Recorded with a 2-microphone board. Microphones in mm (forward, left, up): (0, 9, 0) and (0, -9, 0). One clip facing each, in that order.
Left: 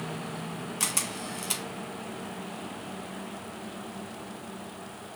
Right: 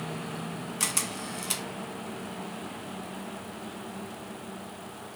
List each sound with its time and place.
0.8 s a camera shutter: 5° right (ahead or behind), 1.4 m